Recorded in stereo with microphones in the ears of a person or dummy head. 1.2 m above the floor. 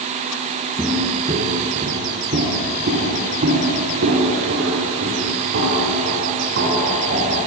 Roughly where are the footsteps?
Centre.